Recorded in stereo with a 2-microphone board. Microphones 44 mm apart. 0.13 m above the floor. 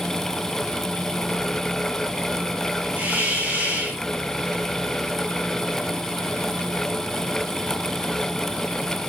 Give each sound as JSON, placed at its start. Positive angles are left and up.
{"t": 3.0, "sound": "a hiss", "side_deg": -30, "distance_m": 4.0}